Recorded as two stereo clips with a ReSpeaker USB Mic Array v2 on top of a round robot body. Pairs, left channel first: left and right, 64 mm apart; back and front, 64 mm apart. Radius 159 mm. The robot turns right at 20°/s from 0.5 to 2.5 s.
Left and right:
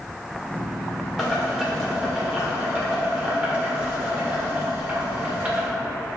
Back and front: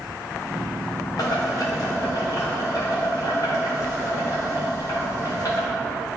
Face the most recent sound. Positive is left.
turn(degrees=-155)